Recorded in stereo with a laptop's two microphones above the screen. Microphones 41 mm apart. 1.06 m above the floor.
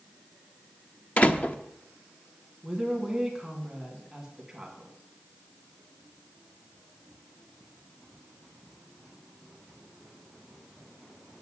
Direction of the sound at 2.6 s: 10° right (ahead or behind).